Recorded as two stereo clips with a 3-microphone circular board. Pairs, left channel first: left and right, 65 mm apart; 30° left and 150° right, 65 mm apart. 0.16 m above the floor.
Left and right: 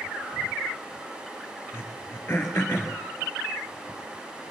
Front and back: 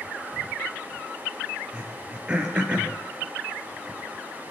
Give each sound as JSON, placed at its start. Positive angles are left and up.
{"t": 1.7, "sound": "throat clearing", "azimuth_deg": 140, "distance_m": 2.0}